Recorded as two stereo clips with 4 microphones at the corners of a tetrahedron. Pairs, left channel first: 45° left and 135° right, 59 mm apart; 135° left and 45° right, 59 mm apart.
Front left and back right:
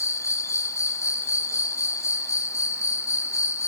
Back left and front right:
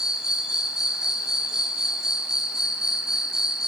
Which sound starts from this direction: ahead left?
An insect, at 0.0 s.